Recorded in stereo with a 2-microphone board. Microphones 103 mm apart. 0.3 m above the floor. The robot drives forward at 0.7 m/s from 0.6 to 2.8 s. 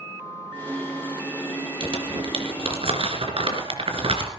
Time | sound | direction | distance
1.8 | crumpling | 55° right (ahead or behind) | 3.5 m